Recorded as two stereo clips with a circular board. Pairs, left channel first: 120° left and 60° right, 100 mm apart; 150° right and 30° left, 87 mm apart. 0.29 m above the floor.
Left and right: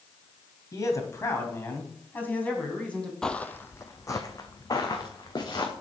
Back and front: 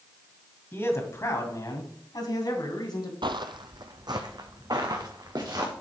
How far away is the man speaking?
About 2 m.